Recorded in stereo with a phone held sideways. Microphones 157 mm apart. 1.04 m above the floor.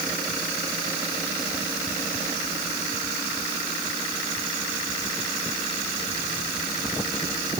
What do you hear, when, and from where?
Only background noise.